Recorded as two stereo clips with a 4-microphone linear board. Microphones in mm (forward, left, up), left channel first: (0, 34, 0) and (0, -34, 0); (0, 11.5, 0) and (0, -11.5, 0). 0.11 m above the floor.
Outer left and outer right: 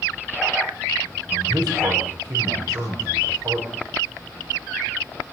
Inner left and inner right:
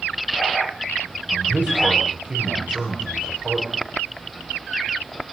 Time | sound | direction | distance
1.3 | a man speaking | 65° right (ahead or behind) | 9 m